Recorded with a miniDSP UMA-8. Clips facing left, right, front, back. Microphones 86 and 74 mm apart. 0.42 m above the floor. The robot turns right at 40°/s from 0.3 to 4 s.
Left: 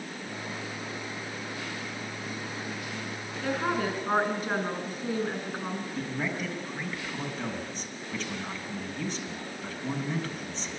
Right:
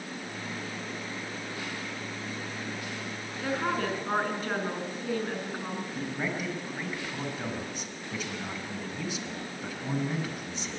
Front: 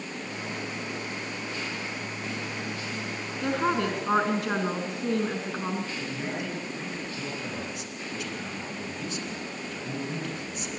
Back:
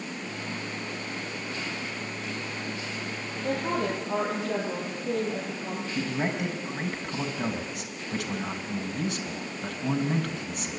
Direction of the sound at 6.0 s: 170° right.